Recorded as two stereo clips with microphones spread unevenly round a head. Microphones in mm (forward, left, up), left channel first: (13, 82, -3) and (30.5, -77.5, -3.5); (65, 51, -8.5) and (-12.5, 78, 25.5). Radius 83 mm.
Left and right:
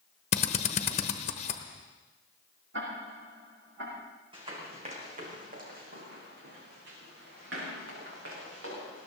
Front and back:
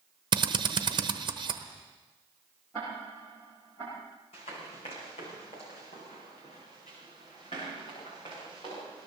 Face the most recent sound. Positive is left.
turn(degrees=-90)